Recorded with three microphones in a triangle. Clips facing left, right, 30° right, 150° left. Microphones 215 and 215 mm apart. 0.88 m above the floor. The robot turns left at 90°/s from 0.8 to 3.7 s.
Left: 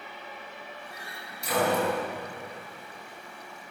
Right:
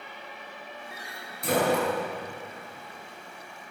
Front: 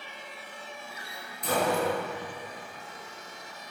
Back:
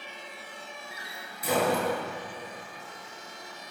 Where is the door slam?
80° right, 9.5 m; by 2.0 s straight behind, 9.5 m.